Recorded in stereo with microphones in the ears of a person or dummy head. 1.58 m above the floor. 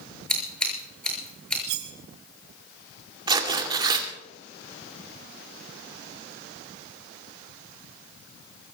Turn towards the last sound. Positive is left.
turn(degrees=-20)  # may be behind; listen again after turning